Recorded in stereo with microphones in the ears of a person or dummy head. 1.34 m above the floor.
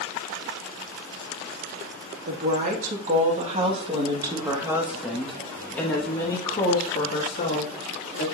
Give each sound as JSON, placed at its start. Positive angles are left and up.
{"t": 2.2, "sound": "a woman speaking", "side_deg": -60, "distance_m": 2.5}